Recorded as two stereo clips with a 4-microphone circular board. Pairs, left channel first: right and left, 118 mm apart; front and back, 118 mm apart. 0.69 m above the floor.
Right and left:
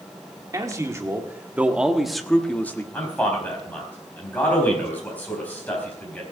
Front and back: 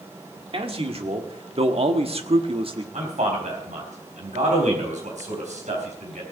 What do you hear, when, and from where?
0.5 s a man speaking: 150° left, 1.8 m; by 2.8 s 155° right, 1.3 m
2.9 s a man speaking: 165° right, 4 m